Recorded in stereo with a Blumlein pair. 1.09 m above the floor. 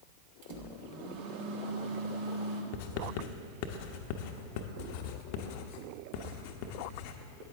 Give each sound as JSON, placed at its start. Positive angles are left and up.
{"t": 0.4, "sound": "a microwave", "azimuth_deg": -50, "distance_m": 1.5}
{"t": 2.7, "sound": "writing", "azimuth_deg": 45, "distance_m": 0.9}